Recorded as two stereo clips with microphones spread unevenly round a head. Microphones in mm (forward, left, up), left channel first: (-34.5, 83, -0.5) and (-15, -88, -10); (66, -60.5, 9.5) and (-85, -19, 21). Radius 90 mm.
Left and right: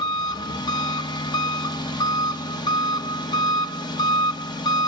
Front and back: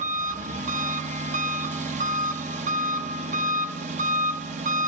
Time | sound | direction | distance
0.0 | an engine running | 150° left | 0.8 m